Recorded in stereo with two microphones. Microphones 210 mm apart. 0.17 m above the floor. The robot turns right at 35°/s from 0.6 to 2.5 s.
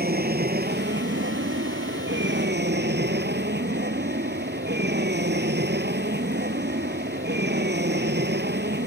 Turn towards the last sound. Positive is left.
turn(degrees=-60)